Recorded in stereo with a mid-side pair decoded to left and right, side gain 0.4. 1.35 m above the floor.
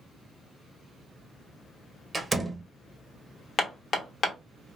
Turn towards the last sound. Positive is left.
turn(degrees=50)